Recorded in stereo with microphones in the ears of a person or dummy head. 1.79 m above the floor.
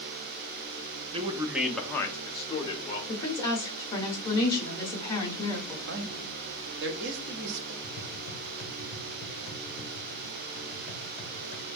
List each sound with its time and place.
1.1 s a man speaking: 35° right (ahead or behind), 0.6 m; by 3.0 s 35° left (ahead or behind), 1.5 m
3.1 s a woman speaking: 25° left (ahead or behind), 1.5 m
5.9 s a man speaking: 65° right (ahead or behind), 0.7 m
7.8 s tapping: 50° left (ahead or behind), 1.0 m